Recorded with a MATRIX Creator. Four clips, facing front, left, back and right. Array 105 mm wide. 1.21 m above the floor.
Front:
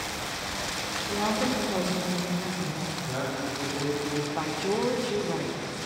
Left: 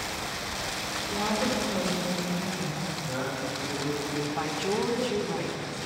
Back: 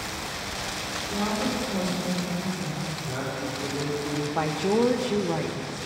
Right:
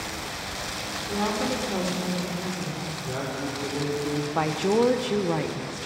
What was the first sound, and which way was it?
A woman speaking, 65° right.